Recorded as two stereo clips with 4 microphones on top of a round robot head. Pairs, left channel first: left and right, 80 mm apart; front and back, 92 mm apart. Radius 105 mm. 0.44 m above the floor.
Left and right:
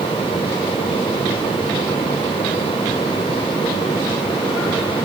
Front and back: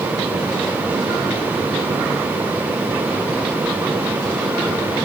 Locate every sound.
Only background noise.